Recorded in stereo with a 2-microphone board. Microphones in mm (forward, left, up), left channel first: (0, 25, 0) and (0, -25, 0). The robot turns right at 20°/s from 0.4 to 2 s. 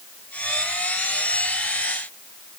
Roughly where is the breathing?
No breathing in this recording.